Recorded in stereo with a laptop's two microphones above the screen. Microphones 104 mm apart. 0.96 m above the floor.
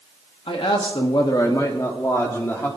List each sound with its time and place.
0.5 s a man speaking: 60° left (ahead or behind), 1.4 m; by 2.7 s 20° left (ahead or behind), 2 m